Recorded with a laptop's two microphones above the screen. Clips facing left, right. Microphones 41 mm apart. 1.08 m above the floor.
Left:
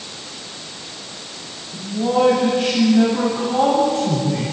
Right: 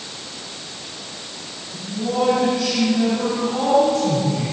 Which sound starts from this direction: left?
A man speaking, at 1.7 s.